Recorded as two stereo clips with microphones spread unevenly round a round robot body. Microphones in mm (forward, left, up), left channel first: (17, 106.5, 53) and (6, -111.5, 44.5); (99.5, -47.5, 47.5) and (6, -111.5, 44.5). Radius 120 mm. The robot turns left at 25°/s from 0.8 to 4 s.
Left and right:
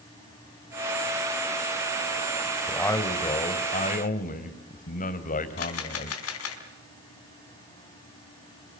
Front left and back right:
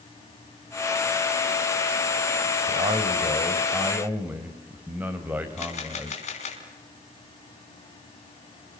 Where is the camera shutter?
70° left, 3.5 m.